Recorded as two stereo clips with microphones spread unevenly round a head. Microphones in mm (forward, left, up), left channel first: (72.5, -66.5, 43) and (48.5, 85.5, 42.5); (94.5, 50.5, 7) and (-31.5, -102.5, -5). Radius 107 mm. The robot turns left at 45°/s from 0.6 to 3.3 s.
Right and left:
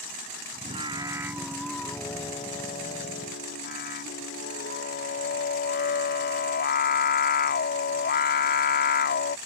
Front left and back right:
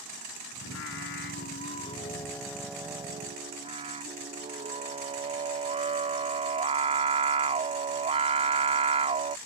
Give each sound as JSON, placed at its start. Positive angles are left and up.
{"t": 0.6, "sound": "singing", "azimuth_deg": 50}